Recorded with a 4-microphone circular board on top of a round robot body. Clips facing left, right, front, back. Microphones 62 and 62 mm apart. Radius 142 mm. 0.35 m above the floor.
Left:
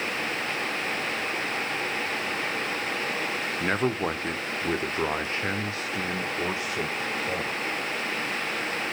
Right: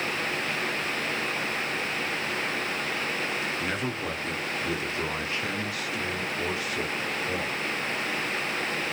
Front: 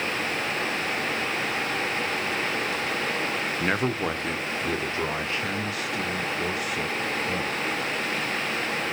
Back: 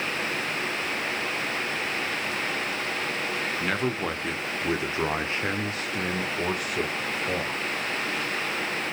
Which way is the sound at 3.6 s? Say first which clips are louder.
Left 4 dB, front 3 dB; 65° left.